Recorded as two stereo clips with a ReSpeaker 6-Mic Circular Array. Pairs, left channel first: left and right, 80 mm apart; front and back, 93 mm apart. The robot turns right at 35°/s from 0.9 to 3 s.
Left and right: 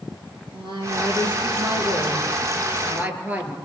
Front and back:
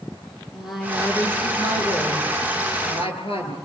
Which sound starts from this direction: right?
A woman speaking, at 0.5 s.